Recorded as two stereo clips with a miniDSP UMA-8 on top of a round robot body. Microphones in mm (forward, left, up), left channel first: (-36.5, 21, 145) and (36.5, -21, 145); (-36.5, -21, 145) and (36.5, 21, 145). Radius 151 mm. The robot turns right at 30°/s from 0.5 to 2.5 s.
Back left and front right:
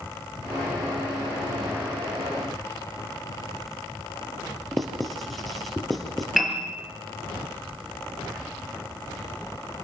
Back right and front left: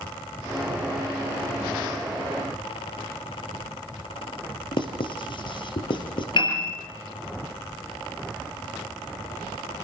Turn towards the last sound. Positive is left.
turn(degrees=-120)